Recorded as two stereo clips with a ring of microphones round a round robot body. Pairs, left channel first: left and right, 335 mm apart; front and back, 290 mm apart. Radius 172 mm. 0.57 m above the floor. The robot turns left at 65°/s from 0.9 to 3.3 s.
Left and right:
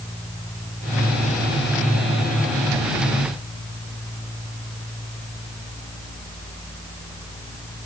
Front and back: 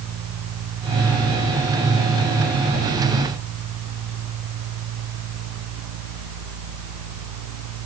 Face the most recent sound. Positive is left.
No sound to turn to.